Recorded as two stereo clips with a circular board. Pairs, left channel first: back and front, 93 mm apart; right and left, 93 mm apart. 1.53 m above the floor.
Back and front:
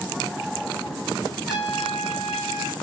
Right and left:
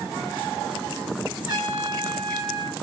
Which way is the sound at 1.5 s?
90° right.